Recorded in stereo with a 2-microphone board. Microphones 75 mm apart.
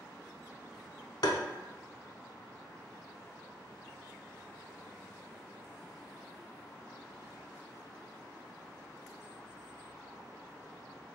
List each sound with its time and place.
1.2 s tapping: 65° left (ahead or behind), 0.5 m